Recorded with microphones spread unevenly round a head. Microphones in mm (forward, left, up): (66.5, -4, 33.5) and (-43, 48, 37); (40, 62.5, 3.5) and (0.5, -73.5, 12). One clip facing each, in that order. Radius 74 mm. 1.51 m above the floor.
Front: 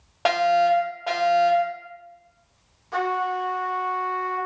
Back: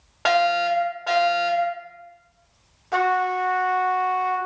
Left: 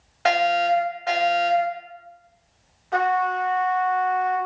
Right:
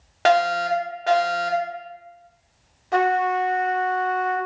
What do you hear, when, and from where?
0.2 s a fire alarm: 95° right, 2 m
2.9 s a trumpet: 160° right, 0.6 m